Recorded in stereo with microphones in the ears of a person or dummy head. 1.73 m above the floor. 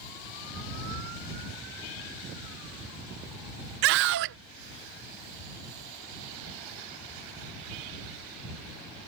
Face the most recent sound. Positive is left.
turn(degrees=-55)  # may be behind; listen again after turning